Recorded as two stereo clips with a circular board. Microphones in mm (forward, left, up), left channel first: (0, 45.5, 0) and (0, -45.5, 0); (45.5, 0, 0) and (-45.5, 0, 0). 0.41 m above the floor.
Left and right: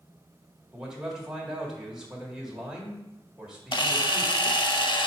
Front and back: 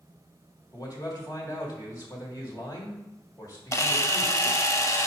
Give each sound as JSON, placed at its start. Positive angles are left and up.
{"t": 0.7, "sound": "a man speaking", "azimuth_deg": -10, "distance_m": 1.6}
{"t": 3.7, "sound": "a camera shutter", "azimuth_deg": 55, "distance_m": 0.6}